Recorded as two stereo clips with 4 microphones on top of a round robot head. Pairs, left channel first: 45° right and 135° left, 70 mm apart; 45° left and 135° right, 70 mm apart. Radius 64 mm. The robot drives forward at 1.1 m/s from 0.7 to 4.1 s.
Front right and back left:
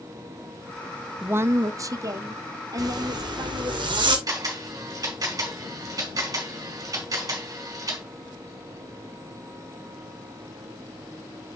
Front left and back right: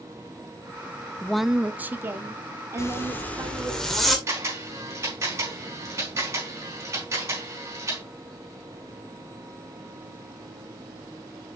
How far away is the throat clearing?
No throat clearing in this recording.